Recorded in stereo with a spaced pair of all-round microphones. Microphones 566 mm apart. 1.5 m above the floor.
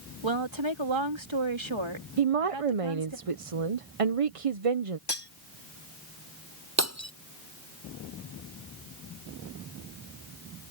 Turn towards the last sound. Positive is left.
turn(degrees=-25)  # may be behind; listen again after turning